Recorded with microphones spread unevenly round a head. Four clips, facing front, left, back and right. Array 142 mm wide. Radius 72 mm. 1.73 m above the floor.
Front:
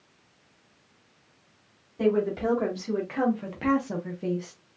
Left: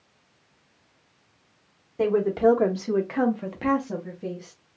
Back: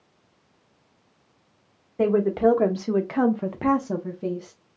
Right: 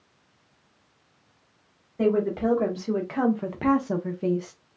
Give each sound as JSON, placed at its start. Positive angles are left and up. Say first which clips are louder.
{"t": 2.0, "sound": "a woman speaking", "louder": "left 2 dB, back 5 dB", "azimuth_deg": 160, "distance_m": 1.3}